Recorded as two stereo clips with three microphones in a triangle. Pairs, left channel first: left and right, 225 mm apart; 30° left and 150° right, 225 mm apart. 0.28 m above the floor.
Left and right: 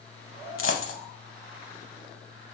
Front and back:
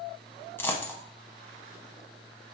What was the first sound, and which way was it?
A dropped coin, 110° left.